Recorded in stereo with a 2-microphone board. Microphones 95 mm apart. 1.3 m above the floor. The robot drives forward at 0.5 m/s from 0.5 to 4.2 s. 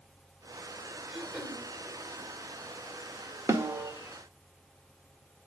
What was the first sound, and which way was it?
Throat clearing, 5° right (ahead or behind).